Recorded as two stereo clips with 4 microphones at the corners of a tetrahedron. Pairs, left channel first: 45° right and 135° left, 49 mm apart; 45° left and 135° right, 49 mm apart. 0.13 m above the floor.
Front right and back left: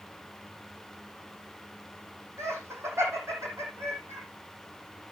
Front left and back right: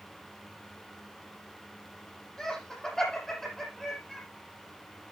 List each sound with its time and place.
2.4 s laughter: 125° left, 6.5 m; by 4.2 s 130° left, 4.5 m